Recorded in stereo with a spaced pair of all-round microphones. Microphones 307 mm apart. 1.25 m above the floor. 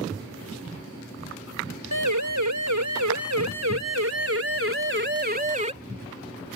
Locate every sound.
1.9 s a siren: 75° right (ahead or behind); by 5.7 s 20° right (ahead or behind)